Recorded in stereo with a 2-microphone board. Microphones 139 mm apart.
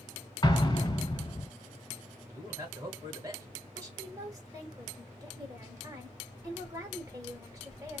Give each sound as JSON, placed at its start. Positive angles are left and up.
{"t": 0.4, "sound": "an explosion", "side_deg": 30, "distance_m": 1.1}
{"t": 2.3, "sound": "a man speaking", "side_deg": -25, "distance_m": 2.0}
{"t": 3.8, "sound": "a woman speaking", "side_deg": -25, "distance_m": 1.3}